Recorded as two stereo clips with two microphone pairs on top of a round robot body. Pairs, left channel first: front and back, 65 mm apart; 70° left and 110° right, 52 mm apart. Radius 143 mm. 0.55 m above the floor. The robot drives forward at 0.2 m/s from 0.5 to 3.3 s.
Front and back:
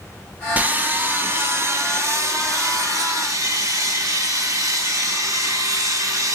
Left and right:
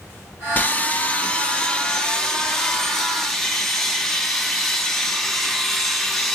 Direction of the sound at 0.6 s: 125° left.